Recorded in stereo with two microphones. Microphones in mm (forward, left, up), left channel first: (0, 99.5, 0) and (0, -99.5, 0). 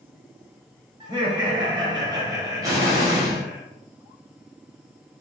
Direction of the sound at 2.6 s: 20° right (ahead or behind).